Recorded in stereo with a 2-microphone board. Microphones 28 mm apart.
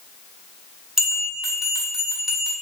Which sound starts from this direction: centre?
A bell, at 1.0 s.